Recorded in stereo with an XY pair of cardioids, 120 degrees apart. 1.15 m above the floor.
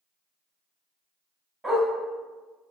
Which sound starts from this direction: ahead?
A dog barking, at 1.6 s.